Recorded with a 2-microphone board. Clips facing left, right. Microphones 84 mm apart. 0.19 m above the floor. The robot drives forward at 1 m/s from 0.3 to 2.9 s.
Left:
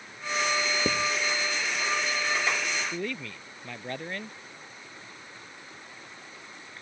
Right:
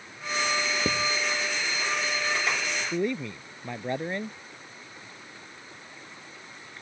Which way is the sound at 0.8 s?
10° left (ahead or behind).